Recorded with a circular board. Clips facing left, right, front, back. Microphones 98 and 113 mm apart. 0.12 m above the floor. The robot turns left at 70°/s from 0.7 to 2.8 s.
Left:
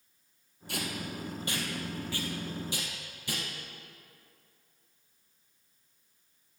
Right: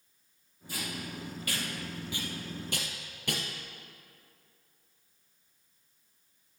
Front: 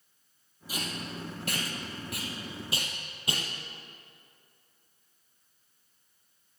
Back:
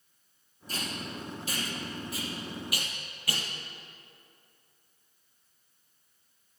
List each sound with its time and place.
0.7 s tape being pulled: 80° left, 2 m; by 3.4 s 65° right, 2 m